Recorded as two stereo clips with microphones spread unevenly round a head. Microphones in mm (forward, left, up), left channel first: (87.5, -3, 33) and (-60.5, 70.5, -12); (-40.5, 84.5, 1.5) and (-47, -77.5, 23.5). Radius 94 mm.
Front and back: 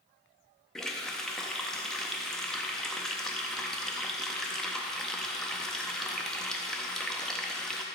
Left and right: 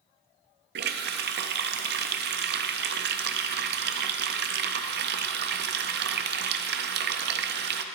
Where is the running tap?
110° right, 0.5 m.